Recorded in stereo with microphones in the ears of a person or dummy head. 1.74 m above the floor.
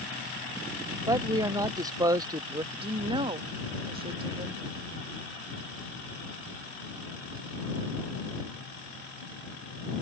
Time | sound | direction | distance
1.1 | a man speaking | 15° right (ahead or behind) | ?
2.7 | a woman speaking | 25° right (ahead or behind) | ?